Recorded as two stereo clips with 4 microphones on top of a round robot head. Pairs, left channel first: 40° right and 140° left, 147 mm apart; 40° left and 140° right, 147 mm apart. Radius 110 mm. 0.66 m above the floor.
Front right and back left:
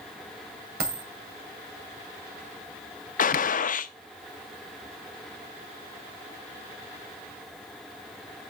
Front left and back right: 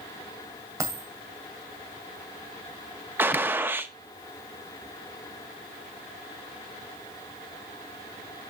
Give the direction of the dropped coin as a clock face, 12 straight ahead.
7 o'clock.